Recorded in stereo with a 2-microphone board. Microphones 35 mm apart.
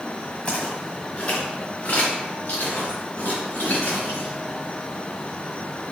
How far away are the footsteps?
About 1.6 m.